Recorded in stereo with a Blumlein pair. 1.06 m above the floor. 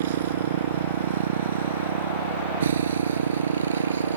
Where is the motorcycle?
60° right; by 4.2 s 70° right.